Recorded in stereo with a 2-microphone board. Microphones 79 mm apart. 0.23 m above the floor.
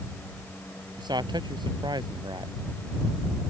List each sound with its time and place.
1.0 s a man speaking: 65° right (ahead or behind)